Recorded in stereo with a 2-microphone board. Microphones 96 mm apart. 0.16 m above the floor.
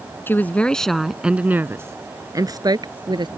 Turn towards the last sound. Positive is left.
turn(degrees=-50)  # may be behind; listen again after turning